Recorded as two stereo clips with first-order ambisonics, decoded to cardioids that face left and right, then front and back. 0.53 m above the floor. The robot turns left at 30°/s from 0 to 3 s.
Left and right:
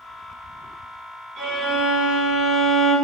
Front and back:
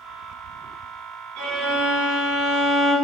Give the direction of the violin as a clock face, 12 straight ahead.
5 o'clock.